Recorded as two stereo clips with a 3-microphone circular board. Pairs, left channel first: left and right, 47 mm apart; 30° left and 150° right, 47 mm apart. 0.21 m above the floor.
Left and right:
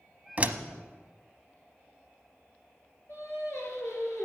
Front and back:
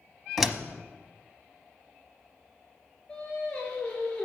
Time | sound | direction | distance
0.4 | a door slam | 75° right | 0.9 m
3.1 | singing | 100° left | 3.5 m